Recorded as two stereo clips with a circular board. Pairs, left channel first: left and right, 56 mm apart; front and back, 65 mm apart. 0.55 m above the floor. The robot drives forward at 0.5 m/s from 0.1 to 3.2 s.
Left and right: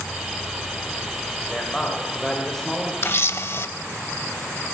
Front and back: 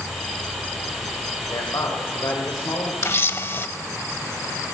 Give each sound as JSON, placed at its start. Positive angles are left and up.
{"t": 0.0, "sound": "an insect", "azimuth_deg": 130, "distance_m": 1.8}
{"t": 1.5, "sound": "a man speaking", "azimuth_deg": 10, "distance_m": 2.5}
{"t": 3.0, "sound": "a camera shutter", "azimuth_deg": 45, "distance_m": 0.7}